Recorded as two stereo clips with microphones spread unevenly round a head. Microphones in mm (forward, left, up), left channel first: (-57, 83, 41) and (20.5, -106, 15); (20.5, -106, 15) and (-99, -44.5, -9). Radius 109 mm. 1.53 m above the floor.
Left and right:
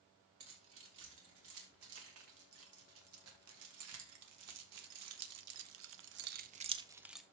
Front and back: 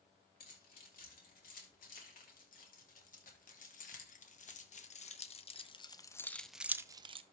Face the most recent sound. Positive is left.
turn(degrees=-170)